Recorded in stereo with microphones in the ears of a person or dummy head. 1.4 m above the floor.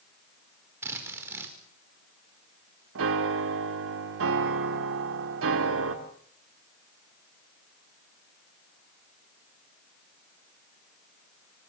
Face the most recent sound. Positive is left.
turn(degrees=-75)  # may be behind; listen again after turning